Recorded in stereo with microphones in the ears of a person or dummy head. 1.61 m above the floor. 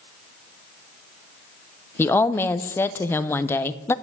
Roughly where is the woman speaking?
Centre.